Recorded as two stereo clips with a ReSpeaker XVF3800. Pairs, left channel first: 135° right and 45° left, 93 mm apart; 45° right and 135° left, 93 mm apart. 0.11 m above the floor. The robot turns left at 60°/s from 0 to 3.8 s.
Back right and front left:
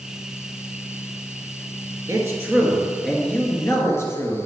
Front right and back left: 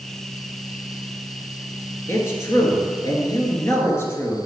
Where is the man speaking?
10° left, 1.8 m; by 4.4 s 95° right, 1.8 m.